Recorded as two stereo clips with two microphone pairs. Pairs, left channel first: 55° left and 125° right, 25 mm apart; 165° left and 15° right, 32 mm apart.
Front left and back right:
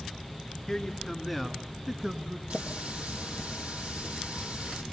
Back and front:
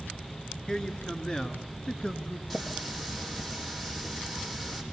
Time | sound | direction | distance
0.7 | a man speaking | 110° left | 1.4 m
2.5 | a running tap | 105° right | 3 m